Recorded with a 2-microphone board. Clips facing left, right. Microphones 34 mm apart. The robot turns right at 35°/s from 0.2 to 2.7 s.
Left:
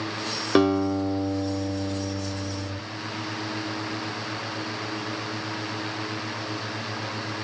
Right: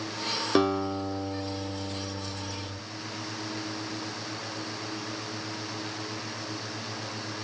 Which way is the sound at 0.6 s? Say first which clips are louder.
Left 5 dB; 20° left.